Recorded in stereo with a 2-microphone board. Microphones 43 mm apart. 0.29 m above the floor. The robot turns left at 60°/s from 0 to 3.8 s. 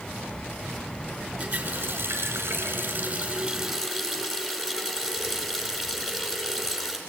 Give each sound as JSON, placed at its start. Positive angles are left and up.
{"t": 1.4, "sound": "a running tap", "azimuth_deg": -40, "distance_m": 3.0}